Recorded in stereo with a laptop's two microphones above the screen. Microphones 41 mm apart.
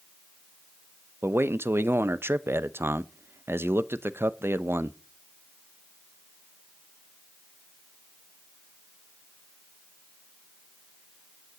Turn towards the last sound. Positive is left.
turn(degrees=-85)